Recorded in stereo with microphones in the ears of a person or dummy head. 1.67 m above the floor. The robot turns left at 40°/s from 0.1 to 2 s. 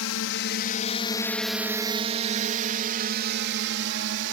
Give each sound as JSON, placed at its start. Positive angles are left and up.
{"t": 0.0, "sound": "a drone", "side_deg": 75}